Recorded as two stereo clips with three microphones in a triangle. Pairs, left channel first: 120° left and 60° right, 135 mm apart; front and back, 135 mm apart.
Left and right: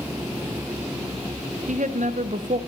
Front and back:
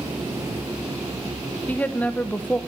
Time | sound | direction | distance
1.7 | a woman speaking | 80° right | 0.6 m